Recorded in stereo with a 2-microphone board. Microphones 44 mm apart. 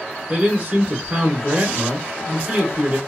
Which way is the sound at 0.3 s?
20° right (ahead or behind).